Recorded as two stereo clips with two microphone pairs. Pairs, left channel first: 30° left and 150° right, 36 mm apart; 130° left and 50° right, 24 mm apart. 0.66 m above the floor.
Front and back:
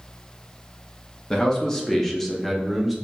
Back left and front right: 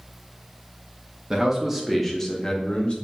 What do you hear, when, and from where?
1.3 s a man speaking: 20° right, 0.7 m; by 3.0 s 125° left, 0.9 m